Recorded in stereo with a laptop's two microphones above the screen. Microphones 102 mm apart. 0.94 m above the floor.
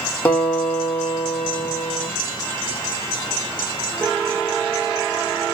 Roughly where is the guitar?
Left.